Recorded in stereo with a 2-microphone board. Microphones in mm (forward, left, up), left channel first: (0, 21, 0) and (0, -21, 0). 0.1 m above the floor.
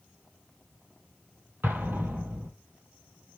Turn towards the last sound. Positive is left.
turn(degrees=-60)  # may be behind; listen again after turning